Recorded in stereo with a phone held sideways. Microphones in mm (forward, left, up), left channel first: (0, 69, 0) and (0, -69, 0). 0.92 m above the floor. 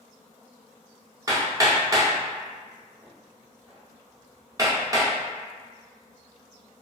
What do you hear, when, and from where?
1.3 s hammering: 25° right (ahead or behind), 0.6 m